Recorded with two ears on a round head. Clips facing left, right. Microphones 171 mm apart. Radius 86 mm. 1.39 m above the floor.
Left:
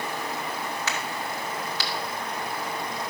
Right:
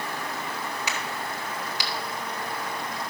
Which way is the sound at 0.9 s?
15° right (ahead or behind).